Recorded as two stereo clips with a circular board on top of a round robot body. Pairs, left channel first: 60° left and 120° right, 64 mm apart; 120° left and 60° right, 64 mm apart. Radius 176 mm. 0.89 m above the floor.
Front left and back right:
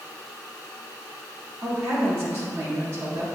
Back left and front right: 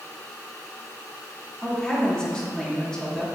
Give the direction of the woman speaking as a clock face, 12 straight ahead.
5 o'clock.